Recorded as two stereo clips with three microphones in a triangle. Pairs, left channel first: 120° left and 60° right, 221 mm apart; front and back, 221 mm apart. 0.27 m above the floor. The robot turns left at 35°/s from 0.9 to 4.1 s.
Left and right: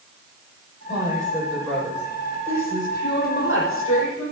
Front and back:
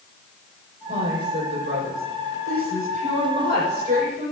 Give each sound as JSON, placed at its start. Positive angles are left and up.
{"t": 0.9, "sound": "a woman speaking", "azimuth_deg": -125, "distance_m": 8.5}